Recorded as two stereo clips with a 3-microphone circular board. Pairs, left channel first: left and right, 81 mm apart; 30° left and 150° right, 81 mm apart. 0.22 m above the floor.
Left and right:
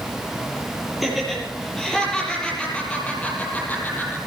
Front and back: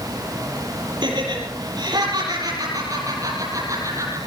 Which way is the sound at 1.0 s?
Straight behind.